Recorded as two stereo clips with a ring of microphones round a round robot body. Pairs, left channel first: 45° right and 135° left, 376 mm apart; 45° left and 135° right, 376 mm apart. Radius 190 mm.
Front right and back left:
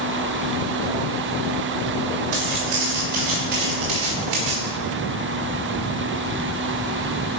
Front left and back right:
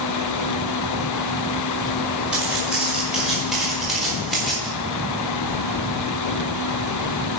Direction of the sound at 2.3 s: 135° left.